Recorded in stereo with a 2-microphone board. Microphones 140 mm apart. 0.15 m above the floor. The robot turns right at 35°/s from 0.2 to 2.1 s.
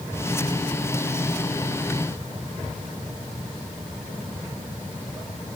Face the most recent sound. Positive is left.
No sound to turn to.